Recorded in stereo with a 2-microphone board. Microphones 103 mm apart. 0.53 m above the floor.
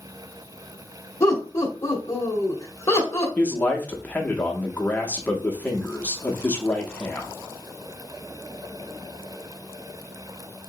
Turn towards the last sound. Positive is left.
turn(degrees=15)  # may be behind; listen again after turning